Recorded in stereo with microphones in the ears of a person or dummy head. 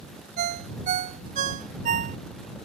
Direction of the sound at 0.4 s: 45° right (ahead or behind).